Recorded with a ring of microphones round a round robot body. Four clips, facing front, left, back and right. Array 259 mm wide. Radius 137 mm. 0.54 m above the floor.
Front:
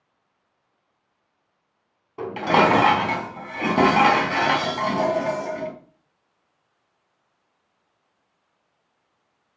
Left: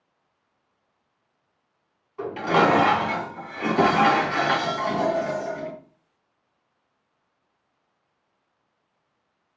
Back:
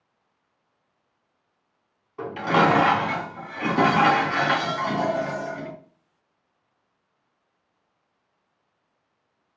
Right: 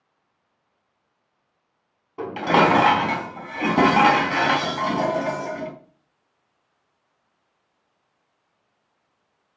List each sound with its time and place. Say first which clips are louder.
2.2 s dishes clattering: right 2 dB, front 2 dB; 45° right, 3.5 m